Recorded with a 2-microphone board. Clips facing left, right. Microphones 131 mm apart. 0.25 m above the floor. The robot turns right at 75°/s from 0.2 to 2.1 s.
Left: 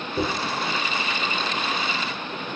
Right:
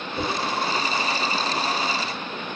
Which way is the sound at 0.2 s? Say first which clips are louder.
Left 2 dB; 60° left (ahead or behind).